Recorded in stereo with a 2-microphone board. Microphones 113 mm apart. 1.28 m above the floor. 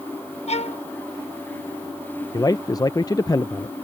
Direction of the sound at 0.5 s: 70° left (ahead or behind).